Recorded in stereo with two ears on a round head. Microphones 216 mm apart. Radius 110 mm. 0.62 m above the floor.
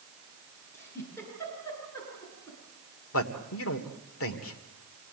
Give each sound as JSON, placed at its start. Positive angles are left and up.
{"t": 0.7, "sound": "a giggle", "side_deg": 10, "distance_m": 9.5}
{"t": 3.1, "sound": "a man speaking", "side_deg": 65, "distance_m": 2.0}